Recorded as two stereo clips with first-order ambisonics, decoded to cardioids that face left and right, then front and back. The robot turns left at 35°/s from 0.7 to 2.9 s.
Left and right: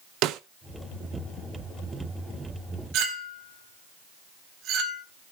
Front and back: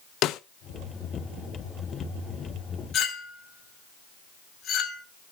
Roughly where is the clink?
Ahead right.